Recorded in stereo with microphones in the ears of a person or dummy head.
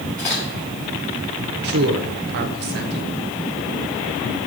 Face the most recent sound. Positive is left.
turn(degrees=-50)  # may be behind; listen again after turning